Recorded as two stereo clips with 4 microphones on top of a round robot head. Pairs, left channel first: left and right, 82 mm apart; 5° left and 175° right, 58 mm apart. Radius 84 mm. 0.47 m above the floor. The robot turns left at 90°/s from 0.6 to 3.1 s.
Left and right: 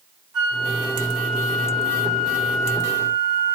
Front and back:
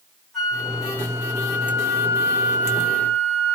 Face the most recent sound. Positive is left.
turn(degrees=45)